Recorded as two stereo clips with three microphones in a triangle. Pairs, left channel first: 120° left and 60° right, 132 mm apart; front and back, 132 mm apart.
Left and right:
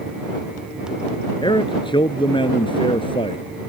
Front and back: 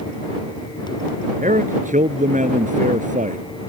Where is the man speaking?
170° left; by 3.4 s 165° left.